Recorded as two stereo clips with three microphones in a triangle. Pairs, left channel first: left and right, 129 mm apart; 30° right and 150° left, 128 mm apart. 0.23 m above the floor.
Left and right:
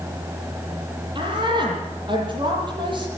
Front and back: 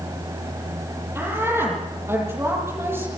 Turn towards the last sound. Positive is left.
turn(degrees=-140)